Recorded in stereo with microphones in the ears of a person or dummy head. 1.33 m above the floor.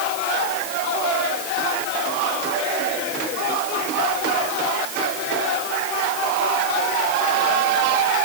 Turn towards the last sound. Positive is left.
No sound to turn to.